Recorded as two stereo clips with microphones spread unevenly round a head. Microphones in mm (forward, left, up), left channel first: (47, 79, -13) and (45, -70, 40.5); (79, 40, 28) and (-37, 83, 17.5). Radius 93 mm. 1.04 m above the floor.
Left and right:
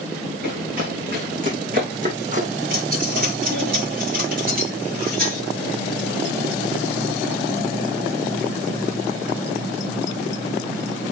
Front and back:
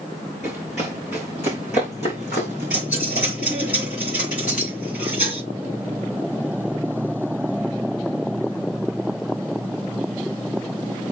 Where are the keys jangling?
70° right, 3.5 m.